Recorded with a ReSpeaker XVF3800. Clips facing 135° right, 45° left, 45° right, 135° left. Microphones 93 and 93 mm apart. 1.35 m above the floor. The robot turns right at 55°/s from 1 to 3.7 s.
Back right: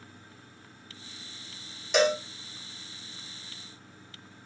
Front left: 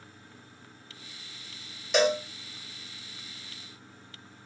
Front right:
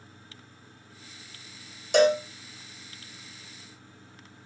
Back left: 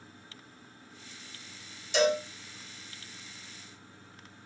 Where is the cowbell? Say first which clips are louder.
Even, front right 6 dB; 45° right, 0.7 m; by 2.2 s 30° right, 0.7 m.